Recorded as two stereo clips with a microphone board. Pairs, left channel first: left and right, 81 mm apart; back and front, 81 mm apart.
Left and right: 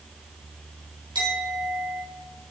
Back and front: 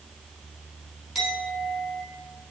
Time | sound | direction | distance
1.1 | a clink | 90° right | 3 m